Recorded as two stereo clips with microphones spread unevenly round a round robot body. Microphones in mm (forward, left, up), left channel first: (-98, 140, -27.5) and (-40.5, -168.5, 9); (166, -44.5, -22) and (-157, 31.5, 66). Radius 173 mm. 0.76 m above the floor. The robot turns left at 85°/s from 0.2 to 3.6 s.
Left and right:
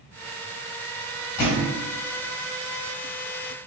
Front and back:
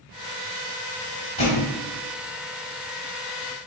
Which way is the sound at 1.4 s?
65° left.